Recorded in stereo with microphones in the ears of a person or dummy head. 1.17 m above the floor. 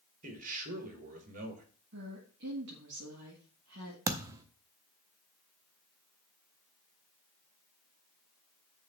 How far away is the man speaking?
About 1.6 m.